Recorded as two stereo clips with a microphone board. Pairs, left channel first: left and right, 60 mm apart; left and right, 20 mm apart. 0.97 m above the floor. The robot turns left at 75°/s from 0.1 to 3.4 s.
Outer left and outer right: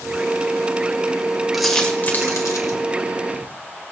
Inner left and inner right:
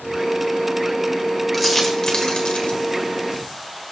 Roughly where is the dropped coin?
Centre.